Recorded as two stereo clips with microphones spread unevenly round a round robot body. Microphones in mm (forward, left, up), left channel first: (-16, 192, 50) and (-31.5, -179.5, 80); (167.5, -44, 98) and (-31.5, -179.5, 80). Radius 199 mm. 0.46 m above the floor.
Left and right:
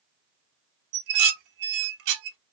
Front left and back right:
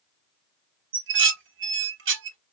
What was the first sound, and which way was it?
Dishes clattering, 125° right.